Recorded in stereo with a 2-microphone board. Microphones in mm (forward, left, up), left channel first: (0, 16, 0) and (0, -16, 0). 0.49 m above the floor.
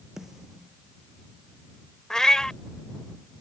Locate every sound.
0.2 s a snare drum: 15° right (ahead or behind)
2.1 s a cat meowing: 20° left (ahead or behind)